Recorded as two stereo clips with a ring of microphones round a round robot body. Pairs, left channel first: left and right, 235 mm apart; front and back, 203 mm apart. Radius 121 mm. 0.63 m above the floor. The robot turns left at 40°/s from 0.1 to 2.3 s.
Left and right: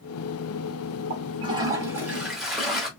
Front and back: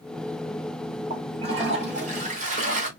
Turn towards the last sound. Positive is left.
turn(degrees=180)